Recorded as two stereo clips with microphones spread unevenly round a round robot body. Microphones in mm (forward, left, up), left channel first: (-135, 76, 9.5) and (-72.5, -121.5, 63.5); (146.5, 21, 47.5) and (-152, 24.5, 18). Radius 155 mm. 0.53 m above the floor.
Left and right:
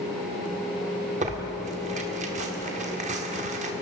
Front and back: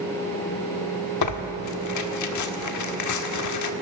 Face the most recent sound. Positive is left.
turn(degrees=-5)